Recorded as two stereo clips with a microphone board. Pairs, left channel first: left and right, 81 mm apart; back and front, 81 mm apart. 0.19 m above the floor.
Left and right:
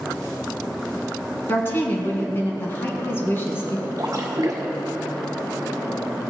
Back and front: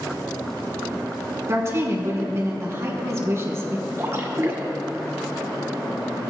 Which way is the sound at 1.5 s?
40° left.